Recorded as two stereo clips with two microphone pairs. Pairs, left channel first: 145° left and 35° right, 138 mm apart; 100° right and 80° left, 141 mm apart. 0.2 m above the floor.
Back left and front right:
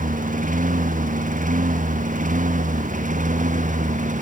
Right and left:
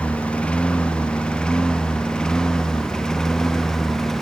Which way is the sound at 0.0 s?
20° right.